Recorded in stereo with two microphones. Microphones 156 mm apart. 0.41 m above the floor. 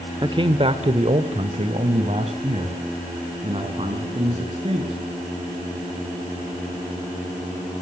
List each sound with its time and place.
0.2 s a man speaking: 30° right (ahead or behind), 1.2 m; by 5.0 s 40° right (ahead or behind), 6 m